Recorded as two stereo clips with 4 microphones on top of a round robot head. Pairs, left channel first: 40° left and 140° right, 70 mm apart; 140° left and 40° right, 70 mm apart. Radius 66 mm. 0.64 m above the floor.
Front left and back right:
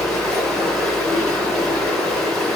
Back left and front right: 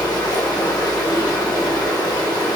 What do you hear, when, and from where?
0.0 s running water: 125° left, 1.1 m